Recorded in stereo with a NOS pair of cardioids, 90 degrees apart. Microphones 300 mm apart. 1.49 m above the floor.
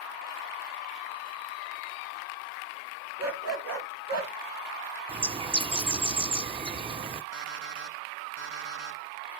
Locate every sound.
3.2 s a dog barking: 65° right, 3.5 m; by 4.3 s 60° right, 3 m
5.1 s a bird: 20° right, 1.0 m
7.3 s an alarm clock: 70° right, 4.5 m